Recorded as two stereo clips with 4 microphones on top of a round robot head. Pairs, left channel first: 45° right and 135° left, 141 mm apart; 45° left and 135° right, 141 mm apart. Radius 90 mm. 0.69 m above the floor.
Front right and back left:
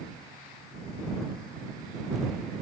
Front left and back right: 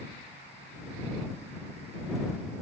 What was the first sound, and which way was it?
Only background noise.